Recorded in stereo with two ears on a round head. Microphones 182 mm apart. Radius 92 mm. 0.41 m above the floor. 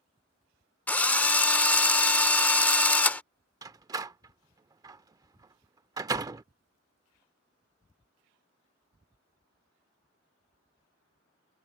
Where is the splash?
I don't hear a splash.